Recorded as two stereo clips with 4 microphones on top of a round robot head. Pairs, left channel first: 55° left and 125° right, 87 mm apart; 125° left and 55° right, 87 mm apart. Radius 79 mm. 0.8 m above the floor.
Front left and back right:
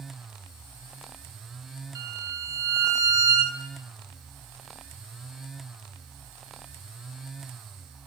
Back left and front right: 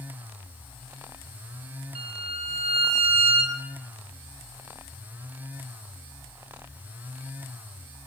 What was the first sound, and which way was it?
A violin, 70° right.